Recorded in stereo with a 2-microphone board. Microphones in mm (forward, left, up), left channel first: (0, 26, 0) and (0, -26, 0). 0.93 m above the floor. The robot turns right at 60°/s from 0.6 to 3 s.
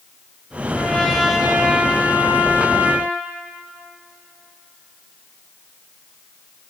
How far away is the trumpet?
About 1.5 m.